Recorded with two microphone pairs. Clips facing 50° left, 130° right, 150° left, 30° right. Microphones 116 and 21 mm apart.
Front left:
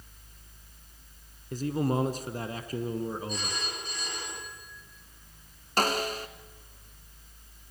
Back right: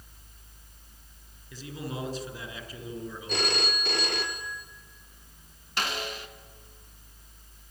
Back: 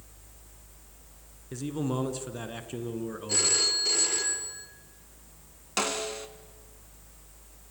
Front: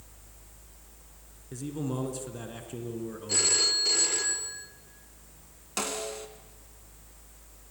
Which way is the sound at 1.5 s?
80° left.